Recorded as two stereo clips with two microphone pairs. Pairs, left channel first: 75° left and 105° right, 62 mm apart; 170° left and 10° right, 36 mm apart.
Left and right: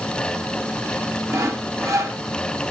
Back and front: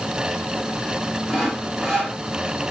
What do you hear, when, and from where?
1.3 s sawing: 105° right, 1.5 m